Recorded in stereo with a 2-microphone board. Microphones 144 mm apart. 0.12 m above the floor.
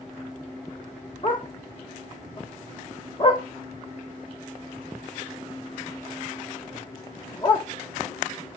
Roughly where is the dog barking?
Left.